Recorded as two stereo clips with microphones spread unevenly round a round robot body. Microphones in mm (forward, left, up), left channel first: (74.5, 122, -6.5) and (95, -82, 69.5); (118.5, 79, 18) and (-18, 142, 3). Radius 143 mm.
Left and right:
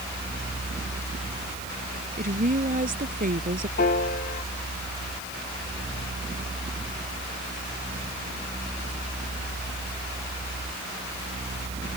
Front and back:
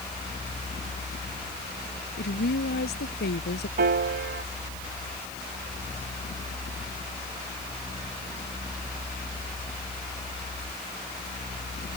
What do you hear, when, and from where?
2.2 s a woman speaking: 35° right
3.8 s a piano: 160° left